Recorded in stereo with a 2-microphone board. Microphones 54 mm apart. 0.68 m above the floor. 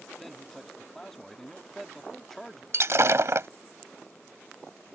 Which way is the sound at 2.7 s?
60° right (ahead or behind).